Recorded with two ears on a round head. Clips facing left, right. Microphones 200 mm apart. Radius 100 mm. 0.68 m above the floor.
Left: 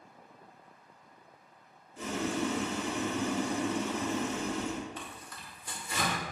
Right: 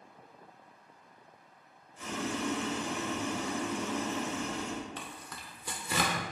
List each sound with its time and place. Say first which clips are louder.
2.0 s boiling: left 3 dB; 55° left (ahead or behind), 1.9 m
5.0 s tearing paper: even; 55° right (ahead or behind), 1.3 m